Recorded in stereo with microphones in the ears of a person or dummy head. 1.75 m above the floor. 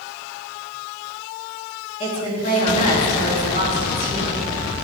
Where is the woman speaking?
40° left (ahead or behind), 3 m.